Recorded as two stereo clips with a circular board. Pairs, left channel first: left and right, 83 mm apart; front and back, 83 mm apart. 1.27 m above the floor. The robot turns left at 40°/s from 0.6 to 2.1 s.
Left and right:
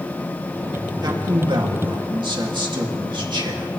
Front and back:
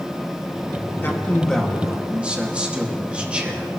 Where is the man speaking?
60° right, 2.5 m; by 3.7 s 105° right, 2.5 m.